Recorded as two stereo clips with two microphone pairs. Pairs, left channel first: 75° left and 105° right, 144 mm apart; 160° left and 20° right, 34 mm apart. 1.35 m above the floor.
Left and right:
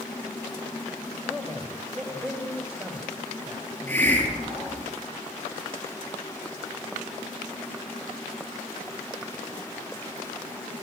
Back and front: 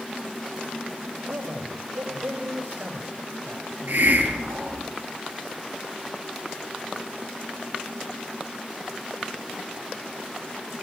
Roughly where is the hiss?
Ahead.